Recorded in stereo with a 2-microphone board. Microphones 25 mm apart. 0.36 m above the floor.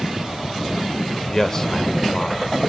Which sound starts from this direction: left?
A man speaking, at 1.3 s.